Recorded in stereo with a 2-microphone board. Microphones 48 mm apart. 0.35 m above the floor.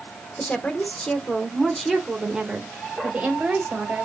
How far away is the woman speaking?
About 1.4 m.